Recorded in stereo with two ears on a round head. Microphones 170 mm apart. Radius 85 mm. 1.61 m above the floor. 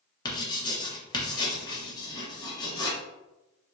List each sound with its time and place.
0.2 s writing: 20° left (ahead or behind), 0.9 m